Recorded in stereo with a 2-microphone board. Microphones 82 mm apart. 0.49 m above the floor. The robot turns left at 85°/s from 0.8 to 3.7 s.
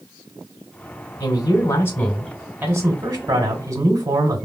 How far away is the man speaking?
About 1.3 m.